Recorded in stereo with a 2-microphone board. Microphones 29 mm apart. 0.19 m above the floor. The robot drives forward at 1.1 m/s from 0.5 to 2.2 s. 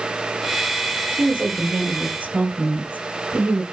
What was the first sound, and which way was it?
A woman speaking, 60° right (ahead or behind).